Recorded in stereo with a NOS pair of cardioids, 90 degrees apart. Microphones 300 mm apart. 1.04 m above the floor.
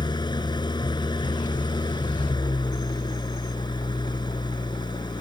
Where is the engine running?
15° left.